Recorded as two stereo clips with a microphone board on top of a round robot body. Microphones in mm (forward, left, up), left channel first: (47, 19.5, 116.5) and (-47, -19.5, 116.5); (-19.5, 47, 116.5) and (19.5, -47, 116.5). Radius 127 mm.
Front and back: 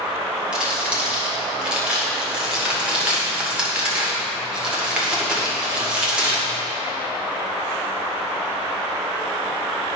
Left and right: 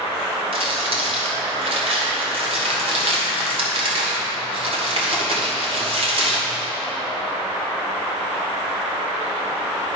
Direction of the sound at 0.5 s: 75° right.